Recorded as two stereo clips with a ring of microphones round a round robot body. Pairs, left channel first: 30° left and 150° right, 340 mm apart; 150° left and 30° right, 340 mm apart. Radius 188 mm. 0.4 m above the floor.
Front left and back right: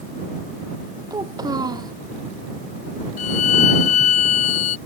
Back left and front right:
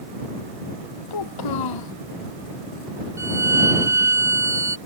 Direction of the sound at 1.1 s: 130° left.